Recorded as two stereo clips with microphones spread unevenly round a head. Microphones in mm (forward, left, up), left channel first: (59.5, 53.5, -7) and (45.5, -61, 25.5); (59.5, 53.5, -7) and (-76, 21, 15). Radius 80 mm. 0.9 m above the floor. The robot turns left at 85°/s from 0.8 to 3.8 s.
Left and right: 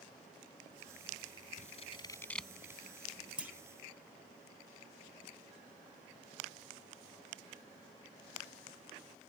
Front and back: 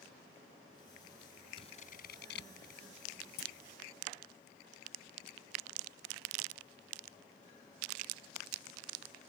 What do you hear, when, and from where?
1.6 s scissors: 70° left; by 2.8 s 35° right
3.4 s a clunk: 10° right; by 3.5 s 25° right